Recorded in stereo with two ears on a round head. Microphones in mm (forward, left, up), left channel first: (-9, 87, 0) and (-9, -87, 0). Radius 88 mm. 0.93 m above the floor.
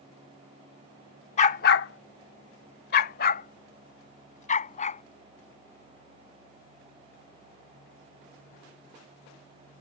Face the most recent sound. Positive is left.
turn(degrees=40)  # may be behind; listen again after turning